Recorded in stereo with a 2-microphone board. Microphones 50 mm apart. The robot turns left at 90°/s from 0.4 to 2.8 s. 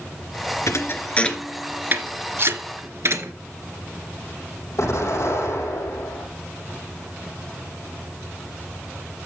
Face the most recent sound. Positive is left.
turn(degrees=70)  # may be behind; listen again after turning